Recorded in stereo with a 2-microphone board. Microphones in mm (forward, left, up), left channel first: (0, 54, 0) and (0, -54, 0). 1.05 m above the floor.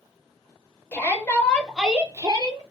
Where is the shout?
20° left (ahead or behind), 1.1 m; by 2.6 s 45° right (ahead or behind), 0.6 m.